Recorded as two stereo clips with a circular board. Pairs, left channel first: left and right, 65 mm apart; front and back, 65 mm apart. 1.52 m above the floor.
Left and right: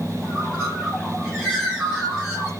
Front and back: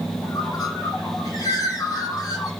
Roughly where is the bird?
Ahead.